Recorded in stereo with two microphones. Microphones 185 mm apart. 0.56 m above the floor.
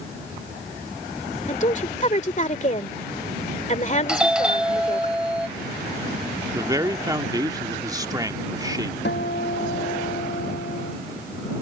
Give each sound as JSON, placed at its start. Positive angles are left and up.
{"t": 1.5, "sound": "a woman speaking", "side_deg": 40}
{"t": 4.1, "sound": "a doorbell", "side_deg": -5}
{"t": 6.5, "sound": "a man speaking", "side_deg": -20}
{"t": 9.1, "sound": "a guitar", "side_deg": 70}